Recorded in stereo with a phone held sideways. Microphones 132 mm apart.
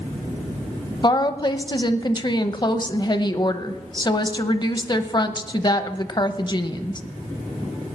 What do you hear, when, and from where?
1.0 s a woman speaking: 35° left (ahead or behind), 0.8 m